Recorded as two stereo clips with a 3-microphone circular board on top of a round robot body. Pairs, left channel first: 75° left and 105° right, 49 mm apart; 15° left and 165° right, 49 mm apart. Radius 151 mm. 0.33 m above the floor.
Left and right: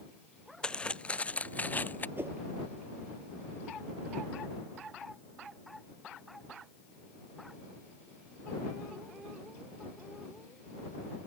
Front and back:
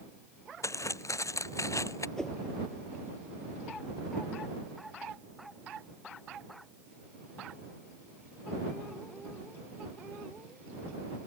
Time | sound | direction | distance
0.6 | footsteps | straight ahead | ?
2.2 | a whoosh | 65° right | ?